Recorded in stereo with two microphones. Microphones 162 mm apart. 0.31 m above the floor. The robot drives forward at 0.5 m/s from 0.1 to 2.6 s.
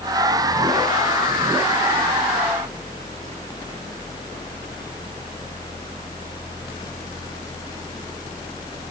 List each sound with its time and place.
Only background noise.